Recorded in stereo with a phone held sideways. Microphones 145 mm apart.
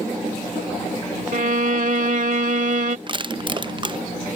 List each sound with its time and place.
1.3 s a violin: 60° right (ahead or behind)
3.1 s crushing: 35° right (ahead or behind)